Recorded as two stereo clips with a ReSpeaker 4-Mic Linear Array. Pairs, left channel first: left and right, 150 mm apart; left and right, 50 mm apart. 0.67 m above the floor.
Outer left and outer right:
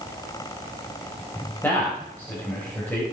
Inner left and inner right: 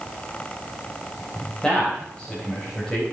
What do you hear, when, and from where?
1.6 s a man speaking: 10° left (ahead or behind), 4 m